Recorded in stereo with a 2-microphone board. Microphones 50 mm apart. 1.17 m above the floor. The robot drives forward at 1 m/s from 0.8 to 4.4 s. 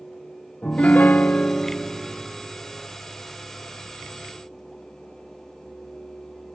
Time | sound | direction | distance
0.6 | a piano | 30° left (ahead or behind) | 0.5 m